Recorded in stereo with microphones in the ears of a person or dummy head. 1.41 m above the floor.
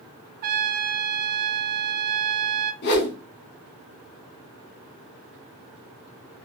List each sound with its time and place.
0.4 s a trumpet: 45° right (ahead or behind), 0.7 m
2.8 s a whoosh: 60° left (ahead or behind), 2.0 m